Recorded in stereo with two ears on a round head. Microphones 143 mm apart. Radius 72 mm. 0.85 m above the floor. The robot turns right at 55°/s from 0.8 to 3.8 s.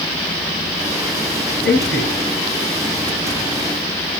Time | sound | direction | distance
1.6 | a man speaking | 70° left (ahead or behind) | 6.5 m